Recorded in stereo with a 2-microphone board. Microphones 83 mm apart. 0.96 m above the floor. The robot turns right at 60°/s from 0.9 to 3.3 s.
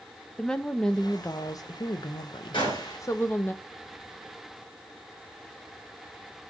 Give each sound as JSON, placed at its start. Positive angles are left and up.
{"t": 0.4, "sound": "a woman speaking", "azimuth_deg": 10, "distance_m": 0.6}
{"t": 2.5, "sound": "a gunshot", "side_deg": 80, "distance_m": 3.0}